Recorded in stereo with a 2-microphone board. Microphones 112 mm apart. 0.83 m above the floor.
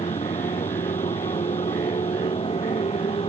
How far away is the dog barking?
I don't hear a dog barking.